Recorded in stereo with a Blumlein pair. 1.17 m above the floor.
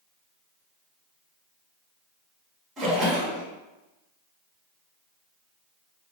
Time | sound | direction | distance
2.8 | a splash | 20° right | 1.5 m